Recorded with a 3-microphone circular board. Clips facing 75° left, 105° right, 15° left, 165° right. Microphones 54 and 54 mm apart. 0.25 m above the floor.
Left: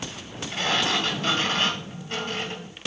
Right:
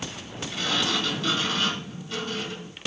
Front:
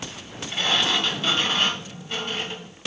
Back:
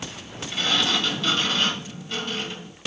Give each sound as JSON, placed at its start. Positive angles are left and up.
{"t": 0.5, "sound": "a sliding door", "azimuth_deg": 70, "distance_m": 2.0}